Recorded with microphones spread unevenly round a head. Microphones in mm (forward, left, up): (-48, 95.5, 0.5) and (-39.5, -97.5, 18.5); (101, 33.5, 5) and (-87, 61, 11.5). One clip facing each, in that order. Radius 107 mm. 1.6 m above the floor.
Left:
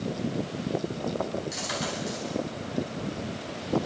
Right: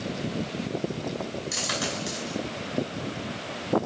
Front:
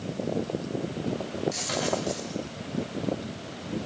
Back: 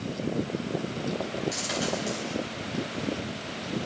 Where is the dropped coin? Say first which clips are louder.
Right 1 dB, front 1 dB; 105° right, 5.5 m.